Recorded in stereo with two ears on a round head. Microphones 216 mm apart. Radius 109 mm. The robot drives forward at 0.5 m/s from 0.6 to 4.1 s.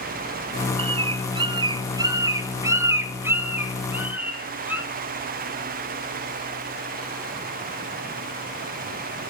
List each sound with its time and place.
0.8 s a bird: 20° right (ahead or behind), 0.6 m; by 4.8 s 10° right (ahead or behind), 1.7 m